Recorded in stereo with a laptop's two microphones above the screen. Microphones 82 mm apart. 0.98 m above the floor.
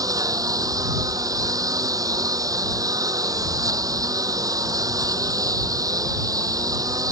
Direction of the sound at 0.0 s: 45° right (ahead or behind).